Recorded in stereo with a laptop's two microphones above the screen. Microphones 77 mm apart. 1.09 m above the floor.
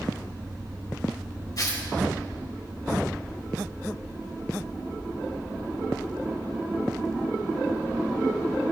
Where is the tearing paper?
55° left (ahead or behind), 2.5 m.